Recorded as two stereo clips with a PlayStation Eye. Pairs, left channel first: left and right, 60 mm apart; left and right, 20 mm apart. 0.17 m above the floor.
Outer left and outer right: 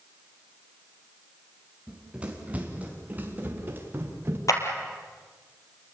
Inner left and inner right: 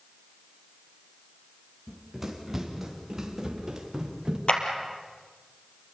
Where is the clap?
65° left (ahead or behind), 3 m.